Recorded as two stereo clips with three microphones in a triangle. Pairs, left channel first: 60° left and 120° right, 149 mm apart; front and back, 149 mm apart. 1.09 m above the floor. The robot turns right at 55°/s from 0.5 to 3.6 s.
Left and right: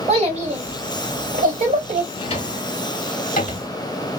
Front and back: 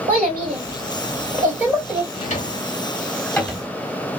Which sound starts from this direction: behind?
A child speaking, at 0.1 s.